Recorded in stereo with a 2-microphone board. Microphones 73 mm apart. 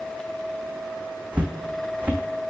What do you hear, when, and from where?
1.3 s footsteps: 20° right (ahead or behind), 0.7 m